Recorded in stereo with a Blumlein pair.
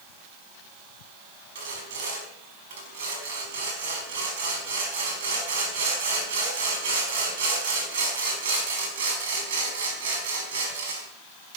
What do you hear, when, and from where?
1.6 s sawing: 55° right, 5 m